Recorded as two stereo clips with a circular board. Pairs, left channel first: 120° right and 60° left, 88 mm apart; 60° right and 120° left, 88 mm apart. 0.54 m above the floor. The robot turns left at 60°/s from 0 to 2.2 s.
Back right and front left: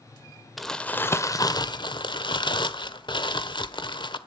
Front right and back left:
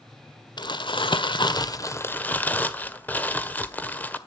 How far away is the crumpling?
About 1.4 m.